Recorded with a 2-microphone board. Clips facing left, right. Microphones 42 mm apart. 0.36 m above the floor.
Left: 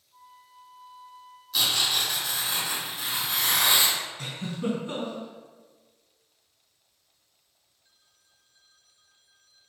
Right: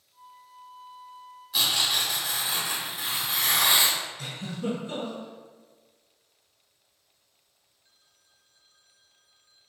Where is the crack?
I don't hear a crack.